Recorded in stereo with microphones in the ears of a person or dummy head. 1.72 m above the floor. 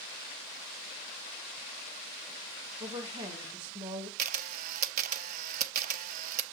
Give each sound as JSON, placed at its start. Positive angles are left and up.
{"t": 2.8, "sound": "a woman speaking", "side_deg": -30, "distance_m": 2.5}
{"t": 4.2, "sound": "a camera shutter", "side_deg": -45, "distance_m": 0.8}